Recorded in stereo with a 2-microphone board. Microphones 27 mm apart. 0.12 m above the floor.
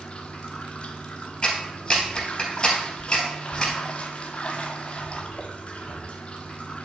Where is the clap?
25° left (ahead or behind), 2.5 m.